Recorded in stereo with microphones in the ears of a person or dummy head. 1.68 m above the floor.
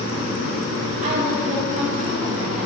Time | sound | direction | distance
1.0 | a woman speaking | 40° right (ahead or behind) | 4.5 m